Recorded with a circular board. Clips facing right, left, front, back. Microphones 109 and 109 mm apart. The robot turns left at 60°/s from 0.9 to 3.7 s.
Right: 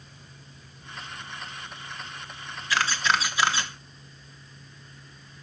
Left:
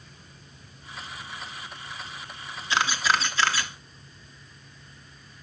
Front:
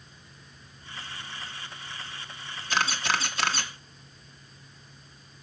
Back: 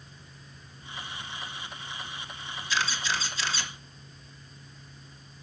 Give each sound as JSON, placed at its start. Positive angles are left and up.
{"t": 2.7, "sound": "a camera shutter", "azimuth_deg": 25, "distance_m": 0.9}